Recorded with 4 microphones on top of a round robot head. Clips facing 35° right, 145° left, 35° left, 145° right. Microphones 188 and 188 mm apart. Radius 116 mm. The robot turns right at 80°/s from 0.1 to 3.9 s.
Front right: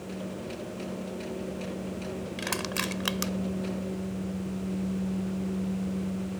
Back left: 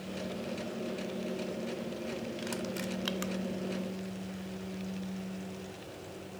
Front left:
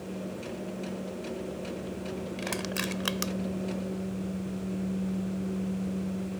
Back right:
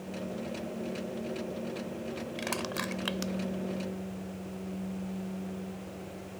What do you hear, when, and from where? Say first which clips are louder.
2.4 s crushing: front right 3 dB, front left 2 dB; 60° right; by 3.3 s 15° left